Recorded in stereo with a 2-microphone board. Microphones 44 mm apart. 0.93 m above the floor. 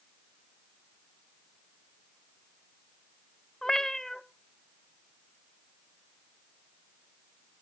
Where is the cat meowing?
15° left (ahead or behind), 0.7 m.